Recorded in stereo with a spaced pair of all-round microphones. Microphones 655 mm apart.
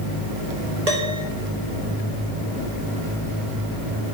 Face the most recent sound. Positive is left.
turn(degrees=-70)  # may be behind; listen again after turning